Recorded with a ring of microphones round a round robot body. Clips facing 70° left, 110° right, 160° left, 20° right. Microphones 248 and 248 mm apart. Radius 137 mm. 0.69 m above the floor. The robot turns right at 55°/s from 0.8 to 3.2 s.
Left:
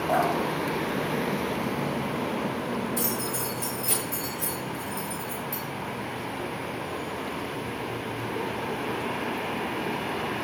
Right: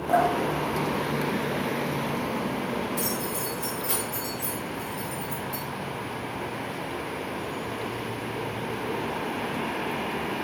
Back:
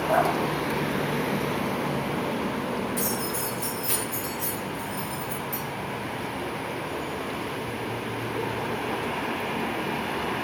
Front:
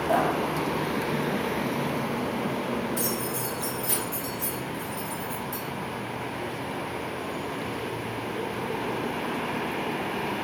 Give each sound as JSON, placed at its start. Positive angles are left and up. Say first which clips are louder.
{"t": 0.1, "sound": "dripping", "louder": "right 3 dB, even", "azimuth_deg": -60, "distance_m": 1.5}
{"t": 3.0, "sound": "keys jangling", "louder": "even, even", "azimuth_deg": 50, "distance_m": 1.7}